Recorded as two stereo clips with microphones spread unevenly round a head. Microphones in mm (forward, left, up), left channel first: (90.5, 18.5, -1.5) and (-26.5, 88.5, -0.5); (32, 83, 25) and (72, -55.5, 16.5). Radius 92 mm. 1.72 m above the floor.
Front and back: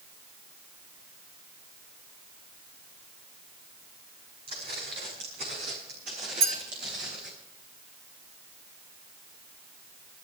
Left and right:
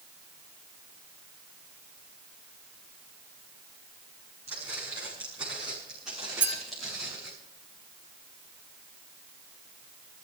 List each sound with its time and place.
4.5 s footsteps: 150° right, 7.5 m; by 7.3 s 165° right, 8 m
6.4 s a clink: 155° right, 3 m